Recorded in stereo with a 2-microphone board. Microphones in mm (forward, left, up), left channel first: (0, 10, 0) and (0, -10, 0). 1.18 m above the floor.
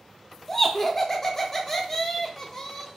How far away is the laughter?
About 0.5 m.